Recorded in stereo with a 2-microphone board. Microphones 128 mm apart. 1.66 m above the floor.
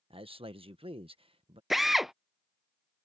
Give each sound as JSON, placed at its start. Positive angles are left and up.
{"t": 0.1, "sound": "a man speaking", "side_deg": -40}
{"t": 1.7, "sound": "a drill", "side_deg": 0}